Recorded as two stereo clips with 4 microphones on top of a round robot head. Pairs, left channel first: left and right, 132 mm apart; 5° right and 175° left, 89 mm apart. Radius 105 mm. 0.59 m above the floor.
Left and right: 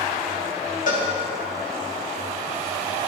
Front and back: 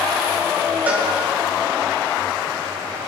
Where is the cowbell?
105° left, 3 m.